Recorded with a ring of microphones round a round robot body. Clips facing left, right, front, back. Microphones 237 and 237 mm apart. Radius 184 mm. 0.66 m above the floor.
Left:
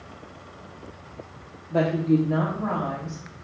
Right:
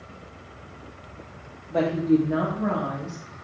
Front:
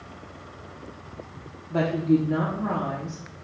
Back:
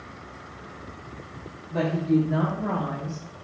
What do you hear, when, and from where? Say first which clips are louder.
1.7 s a woman speaking: right 1 dB, front 1 dB; 10° left, 1.0 m; by 3.2 s 35° right, 1.4 m